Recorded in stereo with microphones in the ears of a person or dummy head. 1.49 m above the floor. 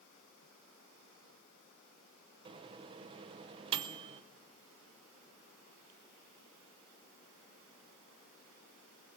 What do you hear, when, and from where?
2.5 s a microwave: 30° right (ahead or behind), 0.8 m